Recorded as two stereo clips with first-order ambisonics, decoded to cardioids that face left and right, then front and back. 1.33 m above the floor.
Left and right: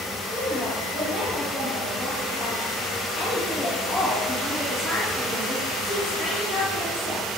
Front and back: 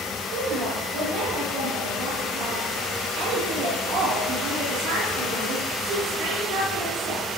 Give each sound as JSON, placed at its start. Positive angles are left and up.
{"t": 0.3, "sound": "a woman speaking", "azimuth_deg": 170, "distance_m": 1.7}